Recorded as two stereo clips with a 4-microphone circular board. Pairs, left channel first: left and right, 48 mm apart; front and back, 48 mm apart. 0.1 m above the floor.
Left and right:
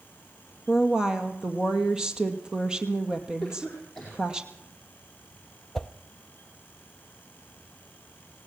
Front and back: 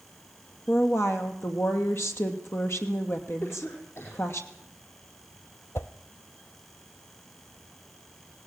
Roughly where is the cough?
Ahead.